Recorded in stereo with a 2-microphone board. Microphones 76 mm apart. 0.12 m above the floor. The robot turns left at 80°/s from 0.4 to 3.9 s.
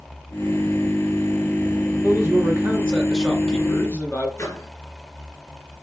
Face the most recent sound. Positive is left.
turn(degrees=40)  # may be behind; listen again after turning